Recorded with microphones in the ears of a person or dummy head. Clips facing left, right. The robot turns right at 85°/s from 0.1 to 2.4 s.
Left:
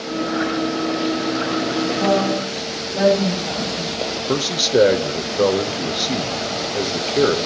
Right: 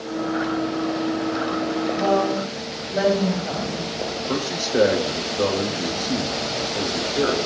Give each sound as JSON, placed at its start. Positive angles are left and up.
{"t": 1.9, "sound": "a woman speaking", "azimuth_deg": 150, "distance_m": 5.0}
{"t": 4.3, "sound": "a man speaking", "side_deg": 45, "distance_m": 0.8}